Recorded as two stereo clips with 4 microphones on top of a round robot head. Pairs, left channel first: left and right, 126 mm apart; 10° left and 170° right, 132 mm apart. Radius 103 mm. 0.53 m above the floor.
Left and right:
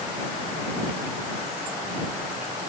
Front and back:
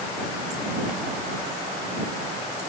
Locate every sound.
Only background noise.